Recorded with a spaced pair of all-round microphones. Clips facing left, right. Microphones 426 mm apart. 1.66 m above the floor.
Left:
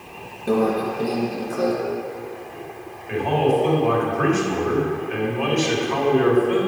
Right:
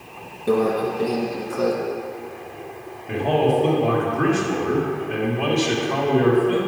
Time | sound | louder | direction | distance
0.5 | a microwave | right 1 dB | centre (ahead or behind) | 0.9 m
3.1 | a man speaking | even | 55° right (ahead or behind) | 1.4 m